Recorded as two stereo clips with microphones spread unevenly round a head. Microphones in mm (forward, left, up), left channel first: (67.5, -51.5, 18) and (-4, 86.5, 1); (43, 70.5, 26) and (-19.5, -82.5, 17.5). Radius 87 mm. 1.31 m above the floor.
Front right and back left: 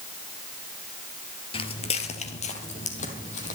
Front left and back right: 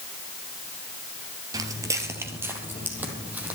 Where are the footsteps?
50° right, 1.6 m; by 3.5 s 30° right, 3 m.